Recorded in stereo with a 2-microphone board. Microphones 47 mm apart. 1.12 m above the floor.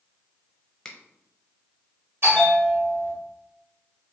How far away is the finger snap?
About 0.7 m.